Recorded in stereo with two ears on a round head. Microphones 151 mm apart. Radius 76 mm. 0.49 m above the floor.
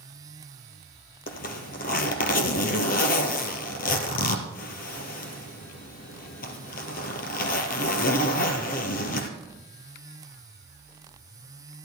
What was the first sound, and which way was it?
A zipper, 60° left (ahead or behind).